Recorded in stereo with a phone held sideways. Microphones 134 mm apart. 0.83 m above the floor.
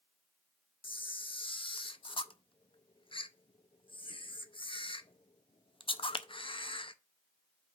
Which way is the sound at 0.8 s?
40° left (ahead or behind).